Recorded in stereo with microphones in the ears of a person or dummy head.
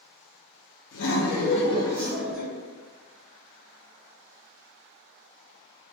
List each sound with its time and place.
0.9 s laughter: 65° left (ahead or behind), 0.7 m; by 2.5 s 15° right (ahead or behind), 0.7 m